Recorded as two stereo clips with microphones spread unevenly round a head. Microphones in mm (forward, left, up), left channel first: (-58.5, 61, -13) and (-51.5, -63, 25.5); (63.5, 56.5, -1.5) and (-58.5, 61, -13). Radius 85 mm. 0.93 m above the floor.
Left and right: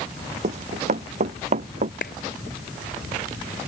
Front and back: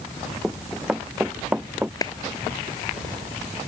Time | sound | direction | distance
0.4 | running footsteps | 95° right | ?
2.0 | a clap | 55° left | ?